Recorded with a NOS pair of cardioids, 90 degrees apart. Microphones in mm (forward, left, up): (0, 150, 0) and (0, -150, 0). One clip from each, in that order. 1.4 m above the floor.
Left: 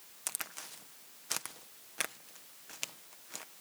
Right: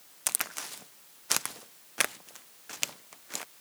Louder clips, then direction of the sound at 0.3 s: Right 8 dB; 40° right.